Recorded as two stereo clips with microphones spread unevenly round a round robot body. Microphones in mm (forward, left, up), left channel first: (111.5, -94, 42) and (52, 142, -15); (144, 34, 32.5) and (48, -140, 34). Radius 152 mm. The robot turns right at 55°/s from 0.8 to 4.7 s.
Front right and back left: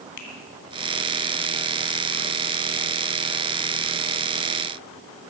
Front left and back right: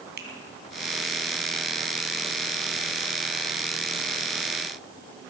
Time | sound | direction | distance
0.2 | a finger snap | 90° right | 3 m